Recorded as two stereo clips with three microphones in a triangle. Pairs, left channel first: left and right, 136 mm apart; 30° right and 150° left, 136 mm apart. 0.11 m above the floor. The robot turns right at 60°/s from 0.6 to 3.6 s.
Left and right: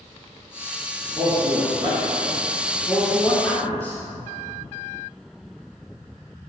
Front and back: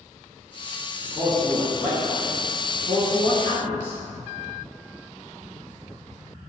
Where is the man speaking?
125° right, 1.1 m; by 4.0 s 25° left, 1.1 m.